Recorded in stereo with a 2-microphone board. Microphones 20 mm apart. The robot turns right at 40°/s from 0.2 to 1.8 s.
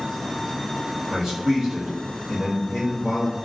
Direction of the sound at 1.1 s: 55° right (ahead or behind).